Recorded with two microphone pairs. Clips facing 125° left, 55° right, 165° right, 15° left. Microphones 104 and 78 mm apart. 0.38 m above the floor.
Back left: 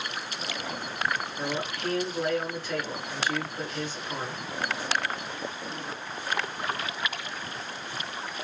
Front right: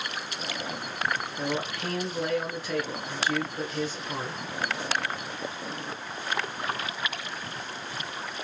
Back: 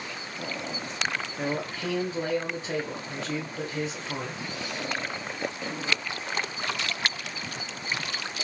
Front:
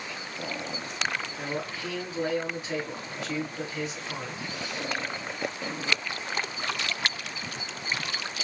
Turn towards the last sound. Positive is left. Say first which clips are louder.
# front right 1 dB, back 3 dB
turn(degrees=-130)